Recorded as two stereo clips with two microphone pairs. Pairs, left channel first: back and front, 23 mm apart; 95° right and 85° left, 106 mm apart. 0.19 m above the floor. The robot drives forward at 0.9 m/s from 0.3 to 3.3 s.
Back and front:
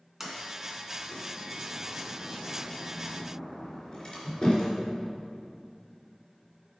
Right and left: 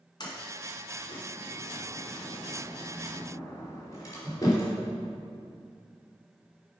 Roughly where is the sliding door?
Right.